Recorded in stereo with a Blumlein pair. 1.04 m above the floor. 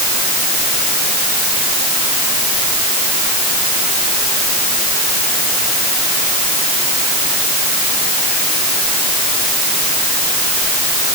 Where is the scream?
No scream in this recording.